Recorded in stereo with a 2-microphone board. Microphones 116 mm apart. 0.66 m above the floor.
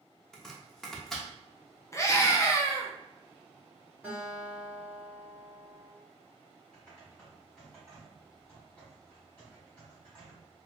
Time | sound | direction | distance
0.3 | chopping | 5° left (ahead or behind) | 0.6 m
1.9 | a scream | 25° left (ahead or behind) | 0.6 m
4.0 | a guitar | 15° right (ahead or behind) | 1.6 m
6.7 | typing on a keyboard | 10° left (ahead or behind) | 1.9 m